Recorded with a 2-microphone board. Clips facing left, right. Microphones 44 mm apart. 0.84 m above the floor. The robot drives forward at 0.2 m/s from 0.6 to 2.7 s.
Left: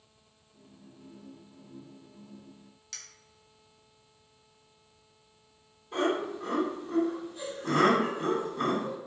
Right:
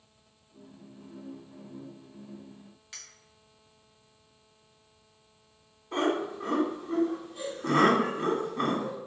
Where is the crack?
No crack in this recording.